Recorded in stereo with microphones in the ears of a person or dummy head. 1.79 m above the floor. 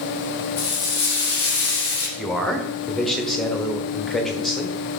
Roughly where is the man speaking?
Centre.